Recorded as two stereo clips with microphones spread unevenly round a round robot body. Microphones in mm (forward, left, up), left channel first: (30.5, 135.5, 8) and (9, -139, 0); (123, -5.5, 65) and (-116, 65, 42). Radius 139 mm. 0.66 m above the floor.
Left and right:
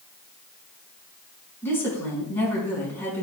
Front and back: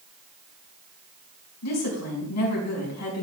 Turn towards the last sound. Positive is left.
turn(degrees=5)